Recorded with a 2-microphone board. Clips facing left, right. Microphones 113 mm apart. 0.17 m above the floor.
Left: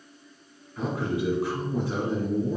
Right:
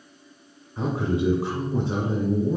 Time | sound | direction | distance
0.8 | a man speaking | 25° right (ahead or behind) | 1.3 m